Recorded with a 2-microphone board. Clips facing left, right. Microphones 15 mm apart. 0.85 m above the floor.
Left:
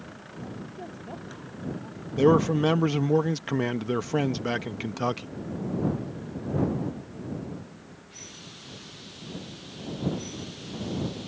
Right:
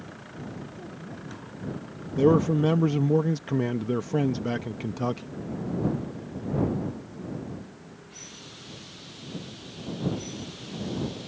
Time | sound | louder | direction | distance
0.7 | a woman speaking | left 1 dB | 70° left (ahead or behind) | ?
2.2 | a man speaking | even | 25° left (ahead or behind) | ?